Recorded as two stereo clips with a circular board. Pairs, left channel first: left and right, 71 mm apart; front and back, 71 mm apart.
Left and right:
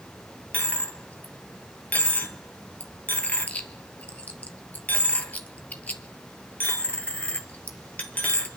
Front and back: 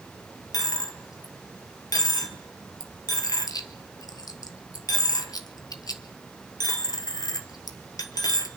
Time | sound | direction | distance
0.5 | a dropped coin | 25° left | 1.0 m